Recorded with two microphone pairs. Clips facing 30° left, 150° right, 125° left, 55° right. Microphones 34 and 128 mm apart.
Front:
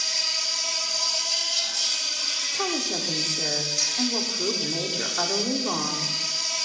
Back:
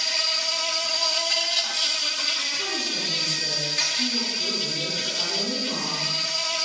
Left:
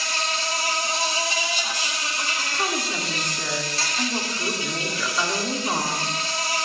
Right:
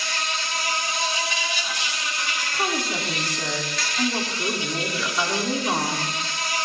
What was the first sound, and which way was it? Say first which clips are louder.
An insect: back 3 dB, left 2 dB; 175° left.